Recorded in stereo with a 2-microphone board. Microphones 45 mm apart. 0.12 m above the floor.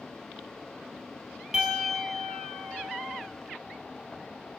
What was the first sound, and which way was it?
A piano, 20° right (ahead or behind).